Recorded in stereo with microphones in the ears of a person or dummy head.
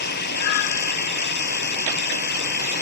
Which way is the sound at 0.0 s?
50° left (ahead or behind).